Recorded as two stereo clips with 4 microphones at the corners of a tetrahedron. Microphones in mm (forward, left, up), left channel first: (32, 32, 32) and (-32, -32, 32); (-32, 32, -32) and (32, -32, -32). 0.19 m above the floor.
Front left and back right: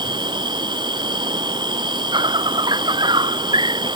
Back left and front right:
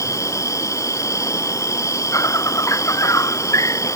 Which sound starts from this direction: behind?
An insect, at 0.0 s.